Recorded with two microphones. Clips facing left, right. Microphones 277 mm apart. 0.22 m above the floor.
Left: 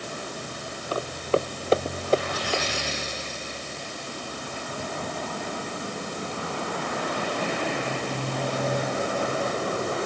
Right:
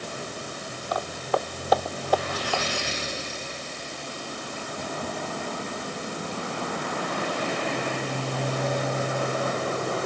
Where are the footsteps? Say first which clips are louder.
Left 3 dB; 35° left (ahead or behind); by 2.6 s 25° left (ahead or behind).